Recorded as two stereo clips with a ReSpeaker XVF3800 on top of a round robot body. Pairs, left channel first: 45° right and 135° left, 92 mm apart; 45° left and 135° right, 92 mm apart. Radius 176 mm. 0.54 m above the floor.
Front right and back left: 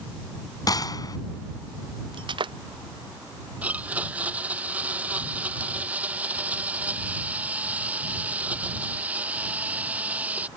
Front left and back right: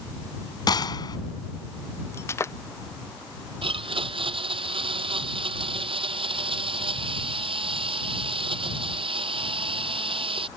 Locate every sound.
0.7 s a gunshot: straight ahead
2.1 s breaking glass: 105° left
3.6 s a blender: 150° right